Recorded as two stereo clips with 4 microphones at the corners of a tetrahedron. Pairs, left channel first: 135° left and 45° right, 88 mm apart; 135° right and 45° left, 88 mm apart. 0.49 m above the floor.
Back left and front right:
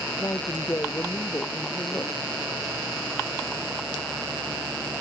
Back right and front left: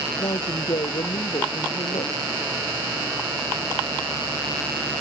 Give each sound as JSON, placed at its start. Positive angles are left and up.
{"t": 0.2, "sound": "a woman speaking", "azimuth_deg": -165}